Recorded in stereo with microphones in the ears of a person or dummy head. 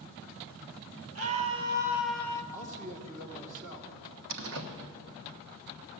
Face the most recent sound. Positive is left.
turn(degrees=-70)  # may be behind; listen again after turning